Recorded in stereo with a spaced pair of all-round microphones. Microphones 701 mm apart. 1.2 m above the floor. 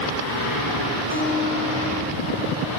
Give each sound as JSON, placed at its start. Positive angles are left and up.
{"t": 1.1, "sound": "a guitar", "side_deg": 15, "distance_m": 6.5}